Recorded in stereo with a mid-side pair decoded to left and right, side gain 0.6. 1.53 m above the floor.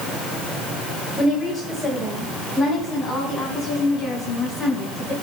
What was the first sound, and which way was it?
A woman speaking, 25° left.